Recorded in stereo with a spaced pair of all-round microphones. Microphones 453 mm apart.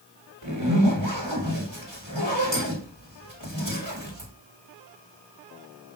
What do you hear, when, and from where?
0.4 s a zipper: 75° right (ahead or behind), 5 m